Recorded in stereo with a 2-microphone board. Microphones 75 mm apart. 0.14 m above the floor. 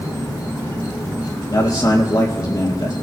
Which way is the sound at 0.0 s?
55° left (ahead or behind).